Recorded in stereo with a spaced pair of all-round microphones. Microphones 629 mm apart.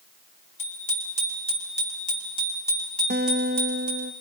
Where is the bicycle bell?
30° left (ahead or behind), 6 m; by 4.1 s 10° right (ahead or behind), 8.5 m.